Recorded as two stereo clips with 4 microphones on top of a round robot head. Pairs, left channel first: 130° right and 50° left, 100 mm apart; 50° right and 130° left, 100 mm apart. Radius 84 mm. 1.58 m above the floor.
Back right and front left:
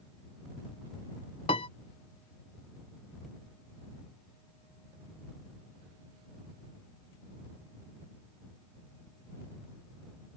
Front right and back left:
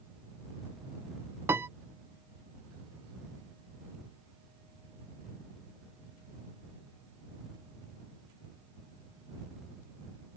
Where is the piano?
160° right.